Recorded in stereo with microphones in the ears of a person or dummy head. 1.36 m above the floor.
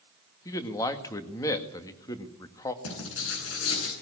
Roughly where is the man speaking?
Left.